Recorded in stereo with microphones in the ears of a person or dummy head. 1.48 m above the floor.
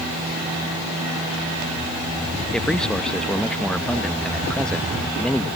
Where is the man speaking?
5° left (ahead or behind).